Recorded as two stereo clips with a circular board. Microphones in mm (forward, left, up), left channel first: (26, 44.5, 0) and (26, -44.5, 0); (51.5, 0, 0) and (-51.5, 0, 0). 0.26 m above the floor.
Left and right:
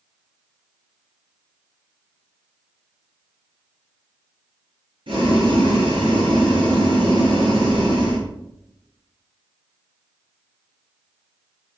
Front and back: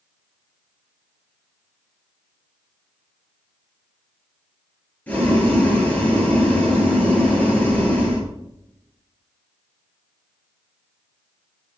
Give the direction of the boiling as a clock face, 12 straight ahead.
2 o'clock.